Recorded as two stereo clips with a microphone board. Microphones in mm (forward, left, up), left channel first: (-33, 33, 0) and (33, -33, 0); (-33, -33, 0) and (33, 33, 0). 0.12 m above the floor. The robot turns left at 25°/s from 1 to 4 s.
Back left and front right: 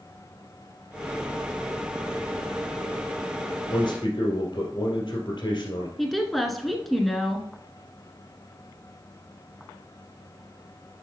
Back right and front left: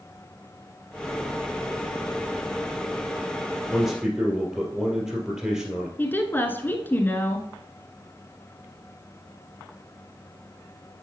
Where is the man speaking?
125° left, 2.0 m; by 5.9 s 115° left, 2.0 m.